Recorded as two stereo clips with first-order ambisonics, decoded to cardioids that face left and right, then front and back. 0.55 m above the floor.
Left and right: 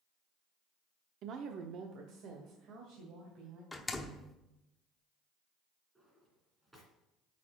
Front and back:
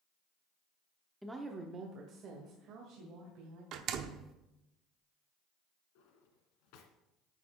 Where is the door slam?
170° left, 0.8 m.